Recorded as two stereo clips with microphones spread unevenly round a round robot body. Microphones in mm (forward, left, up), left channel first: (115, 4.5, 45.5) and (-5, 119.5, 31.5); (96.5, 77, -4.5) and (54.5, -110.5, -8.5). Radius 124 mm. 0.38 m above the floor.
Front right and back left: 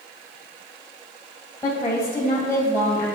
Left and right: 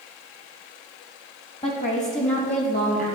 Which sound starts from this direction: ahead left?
A woman speaking, at 1.6 s.